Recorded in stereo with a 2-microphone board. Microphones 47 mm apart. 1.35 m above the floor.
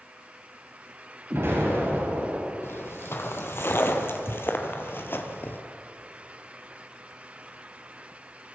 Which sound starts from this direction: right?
An explosion, at 1.3 s.